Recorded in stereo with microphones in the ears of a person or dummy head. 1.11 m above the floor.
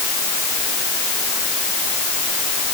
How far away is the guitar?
No guitar in this recording.